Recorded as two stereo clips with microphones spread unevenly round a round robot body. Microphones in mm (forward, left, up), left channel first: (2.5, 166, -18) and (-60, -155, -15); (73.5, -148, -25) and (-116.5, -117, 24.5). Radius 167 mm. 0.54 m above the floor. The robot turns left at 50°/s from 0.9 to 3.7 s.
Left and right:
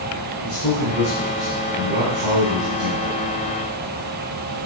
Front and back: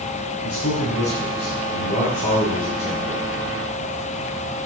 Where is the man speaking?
5° left, 4 m; by 3.2 s 110° right, 4 m.